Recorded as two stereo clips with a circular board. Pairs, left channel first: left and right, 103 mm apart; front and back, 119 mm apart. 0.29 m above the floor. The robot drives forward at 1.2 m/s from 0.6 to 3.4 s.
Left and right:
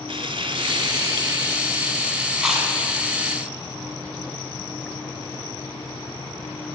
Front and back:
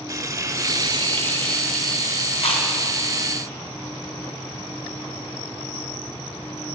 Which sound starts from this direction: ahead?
Chewing, at 2.4 s.